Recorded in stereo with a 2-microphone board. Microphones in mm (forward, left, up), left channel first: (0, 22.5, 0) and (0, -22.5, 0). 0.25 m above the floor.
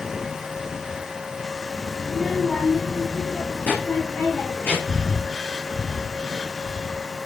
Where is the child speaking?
Centre (ahead or behind), 1.0 m; by 4.8 s 45° left (ahead or behind), 4 m.